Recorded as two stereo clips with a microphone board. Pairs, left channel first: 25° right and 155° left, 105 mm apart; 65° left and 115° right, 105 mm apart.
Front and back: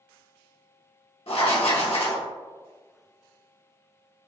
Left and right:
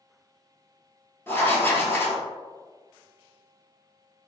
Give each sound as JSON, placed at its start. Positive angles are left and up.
{"t": 1.3, "sound": "writing", "azimuth_deg": 0, "distance_m": 0.9}